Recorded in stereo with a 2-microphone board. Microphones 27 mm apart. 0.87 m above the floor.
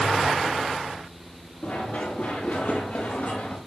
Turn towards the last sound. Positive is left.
turn(degrees=65)  # may be behind; listen again after turning